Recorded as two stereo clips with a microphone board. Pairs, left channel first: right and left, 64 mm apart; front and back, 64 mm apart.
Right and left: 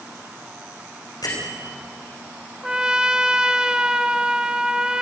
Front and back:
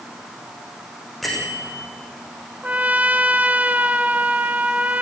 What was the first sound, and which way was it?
A bell, 90° right.